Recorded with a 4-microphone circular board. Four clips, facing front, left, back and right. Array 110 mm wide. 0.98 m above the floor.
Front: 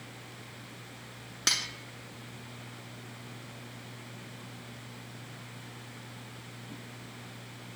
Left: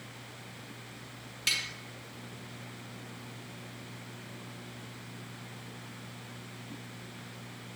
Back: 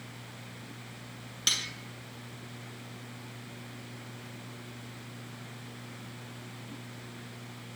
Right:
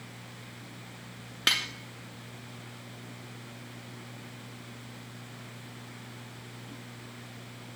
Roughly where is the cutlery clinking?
Right.